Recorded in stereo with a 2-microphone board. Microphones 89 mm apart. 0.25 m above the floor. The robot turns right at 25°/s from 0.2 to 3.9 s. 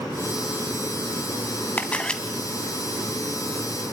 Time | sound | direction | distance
1.8 | a camera shutter | 20° left (ahead or behind) | 1.6 m